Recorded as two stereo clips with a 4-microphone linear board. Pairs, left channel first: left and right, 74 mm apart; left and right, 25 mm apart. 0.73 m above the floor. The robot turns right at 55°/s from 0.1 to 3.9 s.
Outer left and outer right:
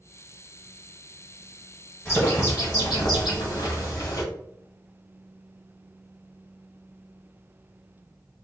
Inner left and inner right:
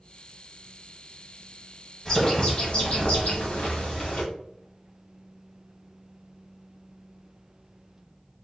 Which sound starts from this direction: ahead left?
A bird, at 2.0 s.